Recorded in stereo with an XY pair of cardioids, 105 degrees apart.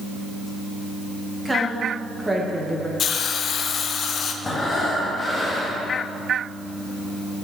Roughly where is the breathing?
Ahead left.